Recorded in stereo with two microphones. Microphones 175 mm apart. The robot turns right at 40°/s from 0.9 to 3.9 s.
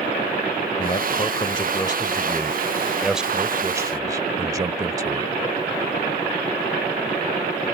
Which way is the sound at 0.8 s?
95° left.